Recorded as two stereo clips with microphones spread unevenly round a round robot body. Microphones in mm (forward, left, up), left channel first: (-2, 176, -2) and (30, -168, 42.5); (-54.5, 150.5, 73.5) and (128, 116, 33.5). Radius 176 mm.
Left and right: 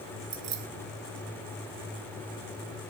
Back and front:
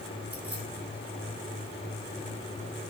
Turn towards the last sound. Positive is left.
turn(degrees=-90)